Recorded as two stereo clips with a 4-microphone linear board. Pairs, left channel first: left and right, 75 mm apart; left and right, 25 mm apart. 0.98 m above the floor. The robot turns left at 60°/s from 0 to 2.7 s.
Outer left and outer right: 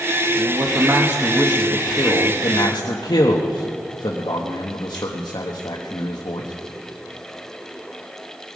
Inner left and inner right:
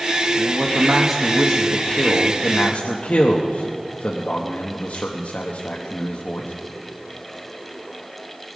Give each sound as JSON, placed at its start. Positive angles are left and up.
{"t": 0.3, "sound": "a man speaking", "azimuth_deg": -120, "distance_m": 1.1}